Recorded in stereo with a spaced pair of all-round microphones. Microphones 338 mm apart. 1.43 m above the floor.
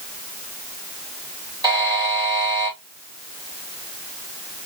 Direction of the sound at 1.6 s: 10° right (ahead or behind).